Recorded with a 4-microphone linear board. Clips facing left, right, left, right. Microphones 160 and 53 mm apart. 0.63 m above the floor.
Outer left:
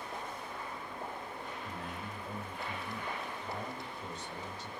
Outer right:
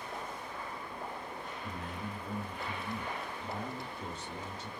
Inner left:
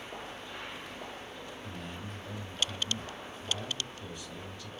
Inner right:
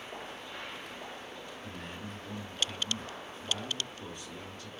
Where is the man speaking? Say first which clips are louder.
Outer right 1 dB, inner right 1 dB; 50° right (ahead or behind), 2 m.